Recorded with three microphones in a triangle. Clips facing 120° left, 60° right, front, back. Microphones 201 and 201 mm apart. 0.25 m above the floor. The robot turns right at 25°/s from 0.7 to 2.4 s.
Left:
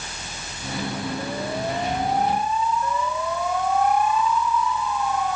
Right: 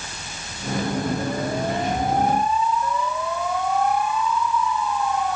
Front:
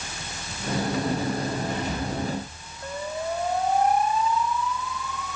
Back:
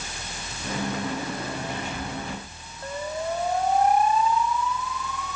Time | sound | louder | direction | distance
1.7 | whispering | right 2 dB, front 4 dB | straight ahead | 1.9 m